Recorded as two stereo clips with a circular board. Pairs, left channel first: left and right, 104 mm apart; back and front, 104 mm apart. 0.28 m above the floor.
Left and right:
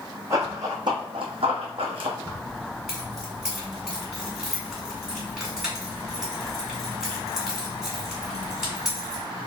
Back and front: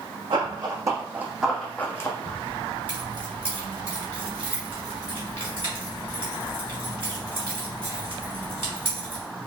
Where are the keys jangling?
10° right, 1.8 m.